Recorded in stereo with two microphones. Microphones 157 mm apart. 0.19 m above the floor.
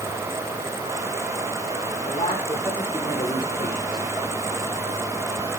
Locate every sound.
2.0 s a man speaking: 40° left (ahead or behind), 9.5 m; by 4.1 s 30° left (ahead or behind), 11 m